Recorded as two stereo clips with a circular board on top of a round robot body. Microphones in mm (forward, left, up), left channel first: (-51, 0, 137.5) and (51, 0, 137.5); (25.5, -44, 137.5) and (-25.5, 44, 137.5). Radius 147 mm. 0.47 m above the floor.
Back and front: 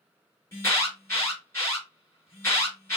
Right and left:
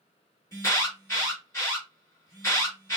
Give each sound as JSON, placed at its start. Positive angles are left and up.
{"t": 0.5, "sound": "an alarm", "azimuth_deg": -120, "distance_m": 4.0}